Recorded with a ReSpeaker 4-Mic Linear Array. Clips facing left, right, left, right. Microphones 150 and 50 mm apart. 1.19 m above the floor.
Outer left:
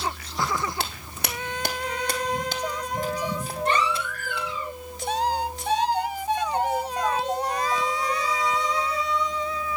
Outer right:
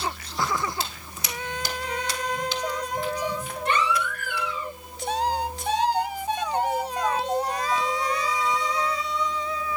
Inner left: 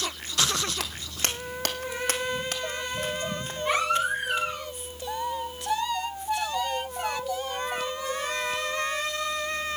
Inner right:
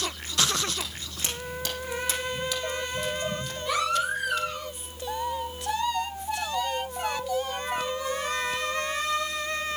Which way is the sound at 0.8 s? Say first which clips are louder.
Outer left 2 dB, inner left 3 dB; 65° left (ahead or behind).